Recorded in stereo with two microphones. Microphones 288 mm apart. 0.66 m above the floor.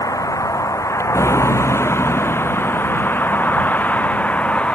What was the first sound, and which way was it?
A vehicle, 10° left (ahead or behind).